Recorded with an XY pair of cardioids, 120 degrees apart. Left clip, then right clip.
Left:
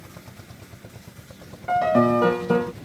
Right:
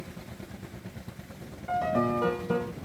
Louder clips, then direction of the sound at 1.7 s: Left 8 dB; 45° left.